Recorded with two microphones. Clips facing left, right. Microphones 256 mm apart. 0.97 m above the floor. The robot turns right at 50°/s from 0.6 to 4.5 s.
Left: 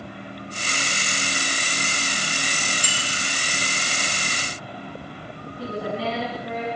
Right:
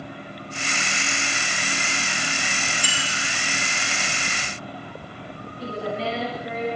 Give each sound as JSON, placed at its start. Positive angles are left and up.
{"t": 2.8, "sound": "a bicycle bell", "side_deg": 45, "distance_m": 5.5}
{"t": 5.6, "sound": "a woman speaking", "side_deg": 65, "distance_m": 9.0}